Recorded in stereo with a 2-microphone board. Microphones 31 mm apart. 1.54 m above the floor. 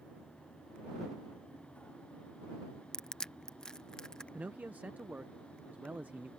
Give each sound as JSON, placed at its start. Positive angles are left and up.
{"t": 2.9, "sound": "crushing", "side_deg": 25}
{"t": 4.3, "sound": "a man speaking", "side_deg": -70}